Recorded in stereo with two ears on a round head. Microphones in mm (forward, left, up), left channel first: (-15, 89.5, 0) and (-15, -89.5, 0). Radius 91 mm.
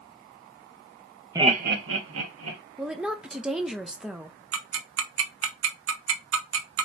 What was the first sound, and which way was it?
Laughter, 15° right (ahead or behind).